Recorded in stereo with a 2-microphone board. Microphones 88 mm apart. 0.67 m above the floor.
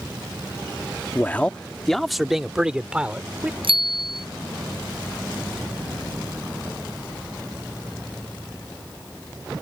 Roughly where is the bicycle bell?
Right.